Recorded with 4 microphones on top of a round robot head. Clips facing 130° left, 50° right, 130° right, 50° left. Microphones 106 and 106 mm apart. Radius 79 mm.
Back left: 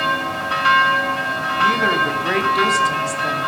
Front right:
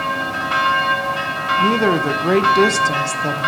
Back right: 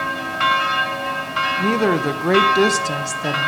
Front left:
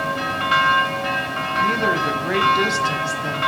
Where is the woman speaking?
100° right, 0.7 m.